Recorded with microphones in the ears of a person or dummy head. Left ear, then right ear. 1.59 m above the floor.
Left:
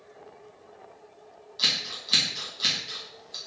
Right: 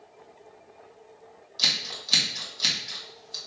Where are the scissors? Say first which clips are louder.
Right 1 dB; 5° right (ahead or behind), 1.5 m.